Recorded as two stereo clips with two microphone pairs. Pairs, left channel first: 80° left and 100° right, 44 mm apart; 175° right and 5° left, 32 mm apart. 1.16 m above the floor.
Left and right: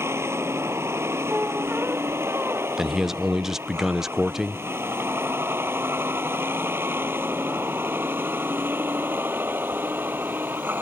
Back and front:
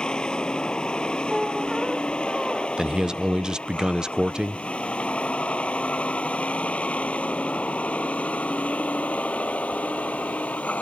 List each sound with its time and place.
0.0 s a vehicle: 115° right; by 10.8 s 140° right
1.3 s a squeak: 75° right
2.8 s a man speaking: 30° right